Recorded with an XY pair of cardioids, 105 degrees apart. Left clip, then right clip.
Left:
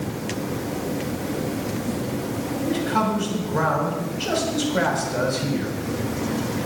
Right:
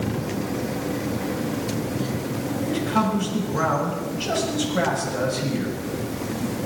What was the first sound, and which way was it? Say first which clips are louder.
A man speaking: left 1 dB; 25° left.